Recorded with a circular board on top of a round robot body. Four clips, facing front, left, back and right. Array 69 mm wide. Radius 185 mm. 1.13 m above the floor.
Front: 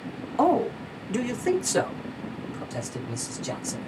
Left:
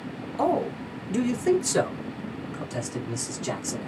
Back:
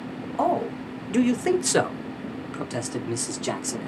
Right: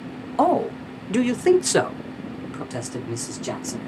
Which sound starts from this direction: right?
A man speaking, at 0.4 s.